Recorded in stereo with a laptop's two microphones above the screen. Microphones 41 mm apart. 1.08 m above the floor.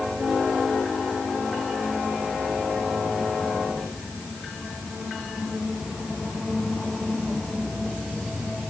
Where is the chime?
No chime in this recording.